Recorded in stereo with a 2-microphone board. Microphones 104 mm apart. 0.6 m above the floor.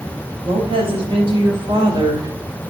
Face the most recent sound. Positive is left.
turn(degrees=-40)  # may be behind; listen again after turning